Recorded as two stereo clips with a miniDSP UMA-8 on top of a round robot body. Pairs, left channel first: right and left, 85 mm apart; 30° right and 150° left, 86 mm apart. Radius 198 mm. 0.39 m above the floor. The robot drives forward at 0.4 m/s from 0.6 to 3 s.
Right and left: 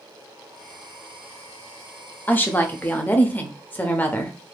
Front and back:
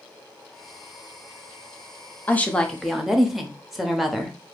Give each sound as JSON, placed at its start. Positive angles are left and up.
{"t": 2.3, "sound": "a woman speaking", "azimuth_deg": -65, "distance_m": 0.9}